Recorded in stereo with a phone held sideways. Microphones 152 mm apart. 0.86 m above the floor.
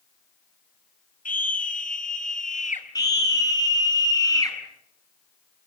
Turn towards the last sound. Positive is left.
turn(degrees=25)  # may be behind; listen again after turning